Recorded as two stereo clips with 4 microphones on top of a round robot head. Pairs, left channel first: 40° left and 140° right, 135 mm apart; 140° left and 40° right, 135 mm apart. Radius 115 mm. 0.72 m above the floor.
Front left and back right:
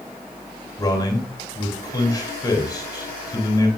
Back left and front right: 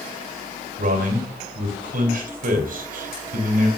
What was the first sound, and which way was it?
A man speaking, 25° right.